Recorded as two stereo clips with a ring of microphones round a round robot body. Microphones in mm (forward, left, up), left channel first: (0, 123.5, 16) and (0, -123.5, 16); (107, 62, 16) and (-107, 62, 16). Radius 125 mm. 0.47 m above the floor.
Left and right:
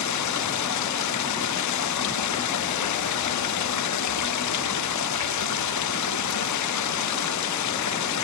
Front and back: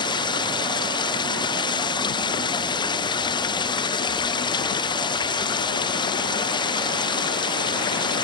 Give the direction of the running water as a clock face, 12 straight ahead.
10 o'clock.